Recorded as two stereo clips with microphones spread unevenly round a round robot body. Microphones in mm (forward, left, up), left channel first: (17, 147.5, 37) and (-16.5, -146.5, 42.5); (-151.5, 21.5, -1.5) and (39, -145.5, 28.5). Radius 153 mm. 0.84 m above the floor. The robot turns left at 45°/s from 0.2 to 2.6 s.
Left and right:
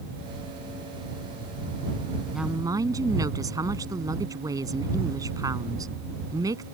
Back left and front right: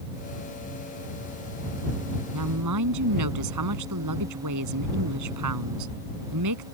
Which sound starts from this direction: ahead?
A woman speaking, at 2.3 s.